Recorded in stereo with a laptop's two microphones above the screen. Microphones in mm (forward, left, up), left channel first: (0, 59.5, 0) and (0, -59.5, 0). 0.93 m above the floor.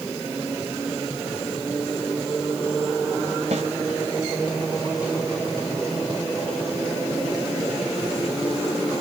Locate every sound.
3.5 s a snare drum: 70° right (ahead or behind), 2.5 m